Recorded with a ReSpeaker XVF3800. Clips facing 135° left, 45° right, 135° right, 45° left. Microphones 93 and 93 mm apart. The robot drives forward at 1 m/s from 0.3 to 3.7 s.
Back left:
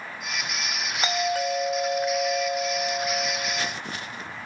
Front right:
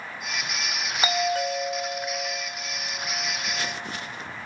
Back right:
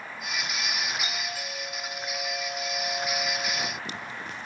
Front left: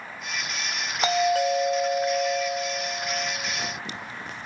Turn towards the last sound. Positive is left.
turn(degrees=150)